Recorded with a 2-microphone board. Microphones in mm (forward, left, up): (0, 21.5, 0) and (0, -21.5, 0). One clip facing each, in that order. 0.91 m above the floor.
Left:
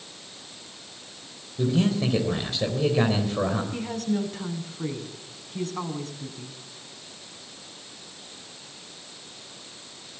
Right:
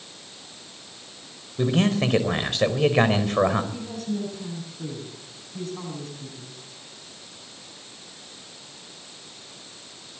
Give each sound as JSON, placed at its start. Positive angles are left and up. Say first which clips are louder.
{"t": 1.6, "sound": "a man speaking", "louder": "right 2 dB", "side_deg": -60, "distance_m": 4.0}
{"t": 3.7, "sound": "a woman speaking", "louder": "left 3 dB", "side_deg": 55, "distance_m": 8.5}